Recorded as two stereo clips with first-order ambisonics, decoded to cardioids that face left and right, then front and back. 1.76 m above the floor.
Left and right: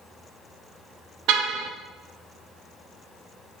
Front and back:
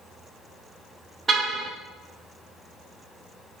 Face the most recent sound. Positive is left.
turn(degrees=-105)